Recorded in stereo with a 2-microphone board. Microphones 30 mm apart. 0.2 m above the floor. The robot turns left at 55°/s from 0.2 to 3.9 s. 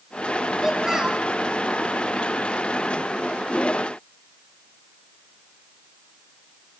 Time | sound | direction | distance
0.6 | a child speaking | 30° right | 0.8 m